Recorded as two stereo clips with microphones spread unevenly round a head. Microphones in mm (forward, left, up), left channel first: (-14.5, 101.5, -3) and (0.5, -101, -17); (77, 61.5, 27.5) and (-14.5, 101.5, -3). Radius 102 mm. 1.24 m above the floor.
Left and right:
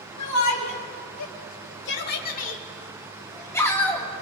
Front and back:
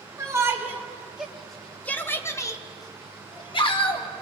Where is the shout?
100° left, 1.9 m; by 4.1 s 10° left, 2 m.